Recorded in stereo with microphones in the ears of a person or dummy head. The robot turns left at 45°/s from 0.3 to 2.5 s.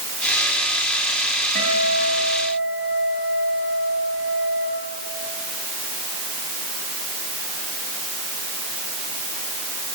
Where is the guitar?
125° right, 5.5 m; by 4.7 s 165° right, 5.5 m.